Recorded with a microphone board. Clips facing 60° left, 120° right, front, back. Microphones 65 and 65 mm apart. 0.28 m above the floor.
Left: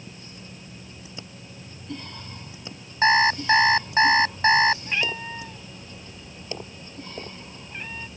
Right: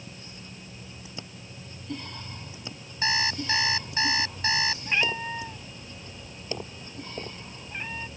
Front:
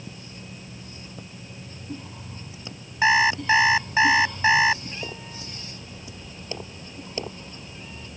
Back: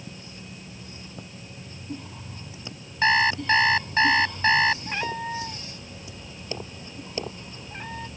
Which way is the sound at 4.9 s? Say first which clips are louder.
Right 1 dB, back 7 dB; 160° left.